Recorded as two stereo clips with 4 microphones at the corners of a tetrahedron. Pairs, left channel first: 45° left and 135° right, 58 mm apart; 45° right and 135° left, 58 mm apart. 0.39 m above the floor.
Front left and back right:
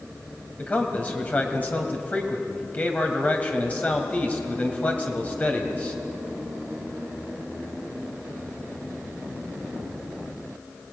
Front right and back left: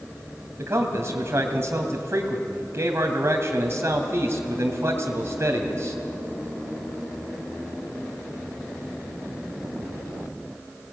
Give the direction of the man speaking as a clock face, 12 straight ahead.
9 o'clock.